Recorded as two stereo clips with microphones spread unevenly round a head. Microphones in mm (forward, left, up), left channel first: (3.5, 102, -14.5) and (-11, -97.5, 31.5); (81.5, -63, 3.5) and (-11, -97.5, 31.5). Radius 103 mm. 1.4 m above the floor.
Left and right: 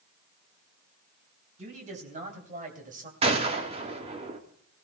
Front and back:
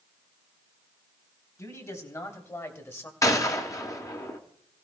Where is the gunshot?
40° right, 2.0 m.